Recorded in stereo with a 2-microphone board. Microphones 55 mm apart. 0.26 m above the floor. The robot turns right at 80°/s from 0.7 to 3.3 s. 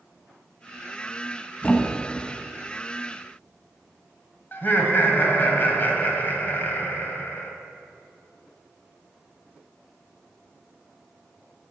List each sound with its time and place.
1.6 s a thud: 30° left (ahead or behind), 0.9 m; by 2.3 s 15° right (ahead or behind), 0.9 m
4.5 s laughter: 40° left (ahead or behind), 1.4 m